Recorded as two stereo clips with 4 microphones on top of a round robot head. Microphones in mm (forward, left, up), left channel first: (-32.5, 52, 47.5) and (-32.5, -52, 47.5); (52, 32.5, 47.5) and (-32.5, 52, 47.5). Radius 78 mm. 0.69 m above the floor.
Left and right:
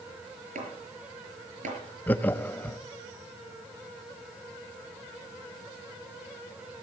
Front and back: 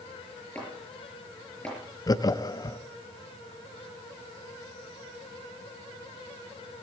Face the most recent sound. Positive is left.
turn(degrees=20)